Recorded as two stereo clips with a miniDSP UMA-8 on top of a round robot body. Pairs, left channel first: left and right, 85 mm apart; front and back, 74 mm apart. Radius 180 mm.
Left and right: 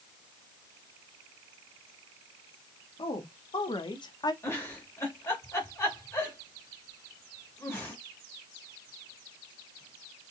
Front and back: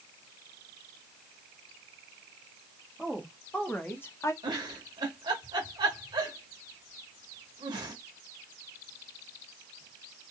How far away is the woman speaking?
About 1.7 m.